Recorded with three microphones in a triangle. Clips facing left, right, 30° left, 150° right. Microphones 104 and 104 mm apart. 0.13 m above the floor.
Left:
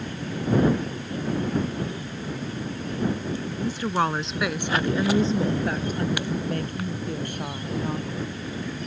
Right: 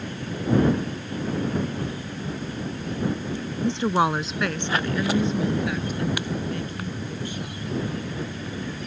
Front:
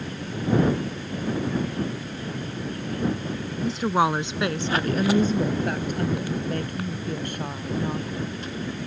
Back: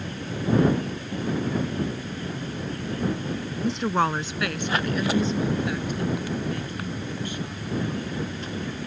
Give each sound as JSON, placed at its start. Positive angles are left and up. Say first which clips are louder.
{"t": 3.6, "sound": "a woman speaking", "louder": "right 4 dB, front 2 dB", "azimuth_deg": -65}